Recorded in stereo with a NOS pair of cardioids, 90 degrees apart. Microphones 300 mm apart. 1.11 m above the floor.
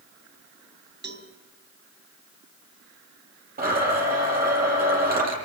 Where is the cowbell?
35° right, 2.5 m.